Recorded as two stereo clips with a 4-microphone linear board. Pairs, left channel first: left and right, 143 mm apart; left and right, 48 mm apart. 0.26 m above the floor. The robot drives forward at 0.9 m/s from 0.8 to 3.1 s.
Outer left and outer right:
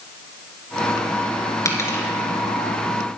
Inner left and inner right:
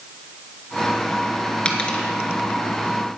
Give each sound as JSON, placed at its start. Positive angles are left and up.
{"t": 1.6, "sound": "a dropped coin", "side_deg": 20, "distance_m": 1.4}